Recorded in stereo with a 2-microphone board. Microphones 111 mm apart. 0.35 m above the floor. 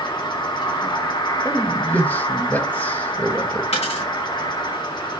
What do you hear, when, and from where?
0.0 s an insect: 45° left (ahead or behind), 1.5 m
1.4 s a man speaking: 15° left (ahead or behind), 1.4 m
3.7 s a dropped coin: 70° left (ahead or behind), 4.5 m